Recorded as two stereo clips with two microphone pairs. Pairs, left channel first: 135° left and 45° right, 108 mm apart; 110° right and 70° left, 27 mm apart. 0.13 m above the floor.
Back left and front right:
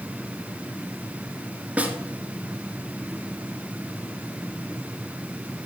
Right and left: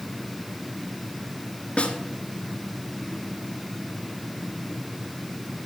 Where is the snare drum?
115° right, 1.9 m.